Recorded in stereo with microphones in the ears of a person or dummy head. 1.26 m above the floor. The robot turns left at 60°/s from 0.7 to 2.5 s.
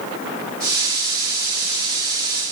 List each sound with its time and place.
Only background noise.